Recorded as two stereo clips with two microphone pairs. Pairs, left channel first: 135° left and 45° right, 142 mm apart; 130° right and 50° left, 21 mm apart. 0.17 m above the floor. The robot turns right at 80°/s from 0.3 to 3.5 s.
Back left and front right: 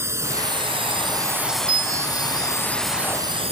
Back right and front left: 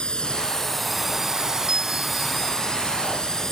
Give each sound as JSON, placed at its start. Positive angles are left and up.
{"t": 0.0, "sound": "a drone", "azimuth_deg": -110}
{"t": 1.7, "sound": "a bell", "azimuth_deg": 0}